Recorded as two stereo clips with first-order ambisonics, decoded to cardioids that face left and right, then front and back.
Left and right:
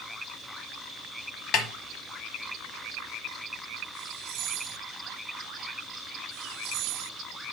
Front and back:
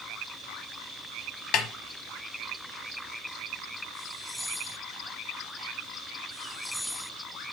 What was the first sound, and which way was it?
A snare drum, 45° left.